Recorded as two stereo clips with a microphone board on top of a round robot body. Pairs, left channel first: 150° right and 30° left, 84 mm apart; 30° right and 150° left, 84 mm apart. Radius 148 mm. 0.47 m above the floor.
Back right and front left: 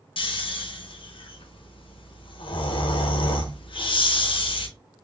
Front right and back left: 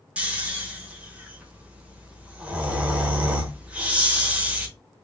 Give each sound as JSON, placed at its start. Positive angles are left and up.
{"t": 0.2, "sound": "snoring", "azimuth_deg": -135, "distance_m": 0.9}